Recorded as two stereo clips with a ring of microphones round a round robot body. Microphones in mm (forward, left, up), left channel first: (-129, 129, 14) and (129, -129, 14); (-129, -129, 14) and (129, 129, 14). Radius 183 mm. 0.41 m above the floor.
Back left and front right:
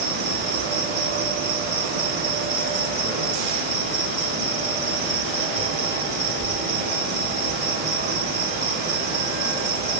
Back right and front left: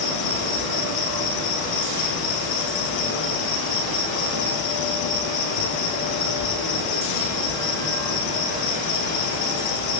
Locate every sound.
0.0 s an insect: 110° right, 5.5 m